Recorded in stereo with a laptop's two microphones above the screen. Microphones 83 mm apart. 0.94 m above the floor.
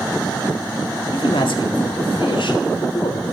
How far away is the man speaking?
About 2.0 m.